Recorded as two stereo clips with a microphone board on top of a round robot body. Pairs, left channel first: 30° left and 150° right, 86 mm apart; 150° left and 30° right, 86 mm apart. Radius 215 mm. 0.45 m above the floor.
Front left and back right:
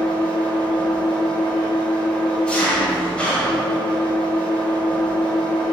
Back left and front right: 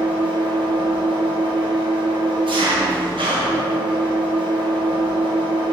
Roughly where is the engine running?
Ahead right.